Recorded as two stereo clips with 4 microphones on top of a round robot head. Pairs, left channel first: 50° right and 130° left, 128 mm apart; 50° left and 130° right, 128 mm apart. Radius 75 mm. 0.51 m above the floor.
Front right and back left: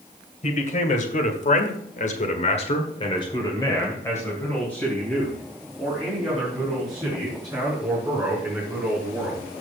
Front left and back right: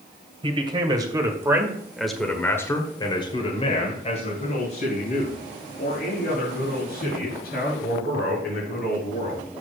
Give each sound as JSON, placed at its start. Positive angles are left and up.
{"t": 0.4, "sound": "a man speaking", "azimuth_deg": -80, "distance_m": 2.5}